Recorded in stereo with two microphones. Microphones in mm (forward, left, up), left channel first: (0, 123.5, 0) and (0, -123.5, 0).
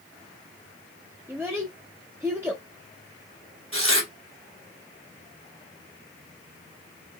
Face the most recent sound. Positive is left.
turn(degrees=-55)  # may be behind; listen again after turning